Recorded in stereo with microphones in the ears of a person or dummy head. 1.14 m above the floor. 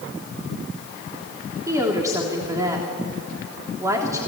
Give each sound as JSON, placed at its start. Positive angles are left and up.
{"t": 1.7, "sound": "a woman speaking", "side_deg": -15, "distance_m": 3.0}